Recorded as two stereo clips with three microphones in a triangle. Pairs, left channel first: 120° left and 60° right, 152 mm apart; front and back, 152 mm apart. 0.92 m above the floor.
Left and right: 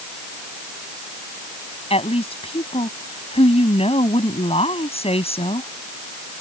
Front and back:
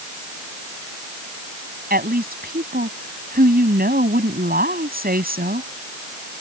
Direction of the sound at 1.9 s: 170° left.